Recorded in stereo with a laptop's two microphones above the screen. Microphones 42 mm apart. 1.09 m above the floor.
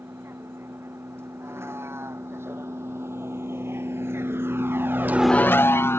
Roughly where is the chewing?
I don't hear chewing.